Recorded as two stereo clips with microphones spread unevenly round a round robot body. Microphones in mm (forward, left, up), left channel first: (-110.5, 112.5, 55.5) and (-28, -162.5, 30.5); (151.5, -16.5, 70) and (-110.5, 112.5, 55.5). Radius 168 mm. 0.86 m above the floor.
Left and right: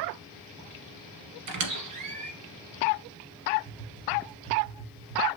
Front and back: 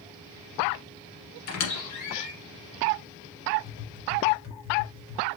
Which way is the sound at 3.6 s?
20° left.